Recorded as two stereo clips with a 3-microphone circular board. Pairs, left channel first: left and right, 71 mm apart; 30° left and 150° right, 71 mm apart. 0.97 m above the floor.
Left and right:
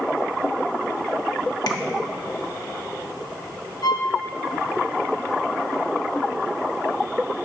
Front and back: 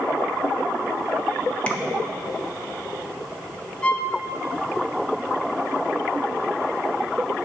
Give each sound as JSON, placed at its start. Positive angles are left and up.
{"t": 1.7, "sound": "tapping", "azimuth_deg": 100, "distance_m": 1.0}
{"t": 3.8, "sound": "a violin", "azimuth_deg": 105, "distance_m": 0.9}